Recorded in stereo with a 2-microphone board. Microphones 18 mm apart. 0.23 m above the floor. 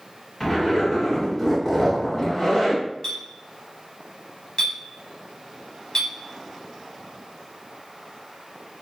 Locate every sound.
0.4 s a zipper: 30° left (ahead or behind), 1.9 m
3.0 s a clink: 40° left (ahead or behind), 0.9 m